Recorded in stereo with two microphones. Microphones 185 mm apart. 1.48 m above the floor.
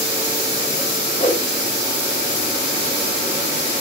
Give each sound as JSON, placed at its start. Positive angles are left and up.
{"t": 1.2, "sound": "a whoosh", "side_deg": 40, "distance_m": 3.5}